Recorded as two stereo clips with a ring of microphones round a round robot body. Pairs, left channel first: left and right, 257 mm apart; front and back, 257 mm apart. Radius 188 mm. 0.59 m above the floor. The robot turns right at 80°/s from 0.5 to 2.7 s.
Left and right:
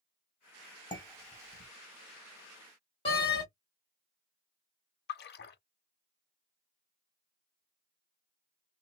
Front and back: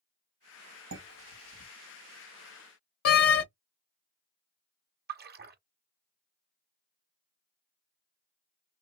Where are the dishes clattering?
160° left, 2 m; by 1.7 s 135° right, 2 m.